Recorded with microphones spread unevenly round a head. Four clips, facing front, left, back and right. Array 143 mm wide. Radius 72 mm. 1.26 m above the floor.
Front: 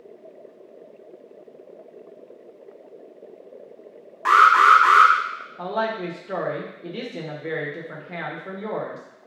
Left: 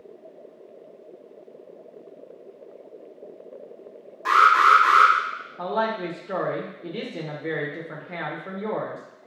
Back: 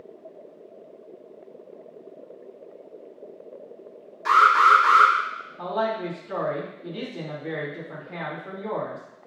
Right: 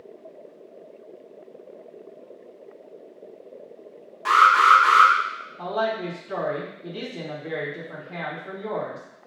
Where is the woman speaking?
35° left, 1.1 m.